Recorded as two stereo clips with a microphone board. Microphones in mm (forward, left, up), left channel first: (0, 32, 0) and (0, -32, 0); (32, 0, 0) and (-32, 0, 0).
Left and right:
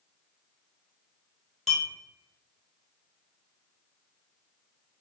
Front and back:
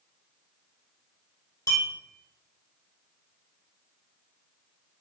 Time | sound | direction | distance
1.7 | a clink | straight ahead | 1.4 m